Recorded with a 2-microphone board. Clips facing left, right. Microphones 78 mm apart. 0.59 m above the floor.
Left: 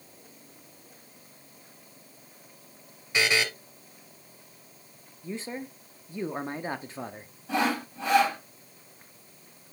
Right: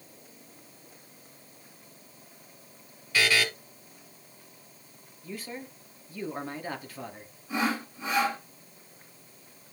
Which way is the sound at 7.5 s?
75° left (ahead or behind).